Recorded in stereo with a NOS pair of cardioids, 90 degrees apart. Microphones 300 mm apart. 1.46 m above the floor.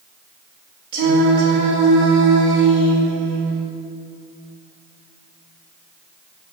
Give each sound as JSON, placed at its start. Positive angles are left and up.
{"t": 0.9, "sound": "singing", "azimuth_deg": -65, "distance_m": 3.0}